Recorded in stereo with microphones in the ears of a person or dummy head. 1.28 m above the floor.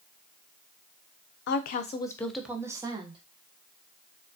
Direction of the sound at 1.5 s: 65° left (ahead or behind).